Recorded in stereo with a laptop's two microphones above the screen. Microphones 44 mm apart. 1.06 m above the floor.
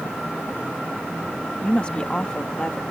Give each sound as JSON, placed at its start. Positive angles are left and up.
{"t": 1.6, "sound": "a woman speaking", "side_deg": 25}